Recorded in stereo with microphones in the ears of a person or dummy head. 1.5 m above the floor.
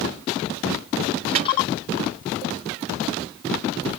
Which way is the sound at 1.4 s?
45° right (ahead or behind).